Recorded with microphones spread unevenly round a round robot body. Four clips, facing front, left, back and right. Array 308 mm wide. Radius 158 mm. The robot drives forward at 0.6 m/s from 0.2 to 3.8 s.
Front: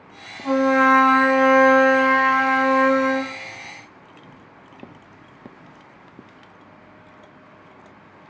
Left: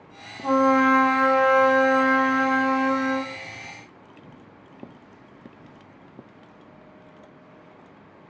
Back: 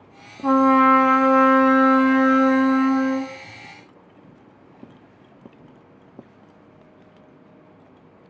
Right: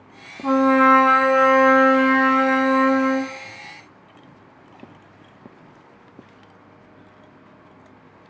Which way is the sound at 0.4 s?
160° right.